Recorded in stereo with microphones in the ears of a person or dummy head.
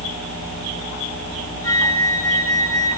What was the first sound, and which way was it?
A flute, 20° left (ahead or behind).